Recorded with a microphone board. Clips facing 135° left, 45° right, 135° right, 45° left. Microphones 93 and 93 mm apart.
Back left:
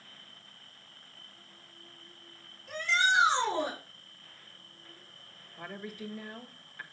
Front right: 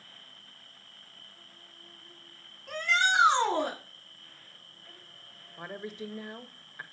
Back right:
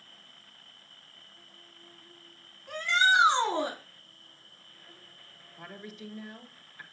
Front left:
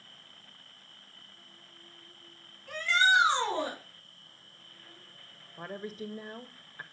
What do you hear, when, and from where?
0.0 s an insect: 70° right, 5 m
2.7 s a shout: 65° right, 4.5 m
5.6 s a woman speaking: 15° left, 1.4 m